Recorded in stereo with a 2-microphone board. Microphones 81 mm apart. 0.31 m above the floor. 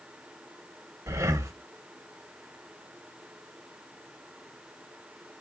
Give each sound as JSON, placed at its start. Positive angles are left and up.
{"t": 1.1, "sound": "breathing", "side_deg": -35, "distance_m": 0.8}